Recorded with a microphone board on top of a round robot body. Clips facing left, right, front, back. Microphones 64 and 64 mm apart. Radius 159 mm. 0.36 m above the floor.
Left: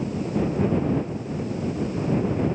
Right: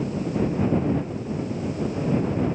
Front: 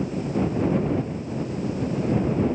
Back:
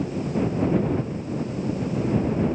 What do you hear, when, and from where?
Only background noise.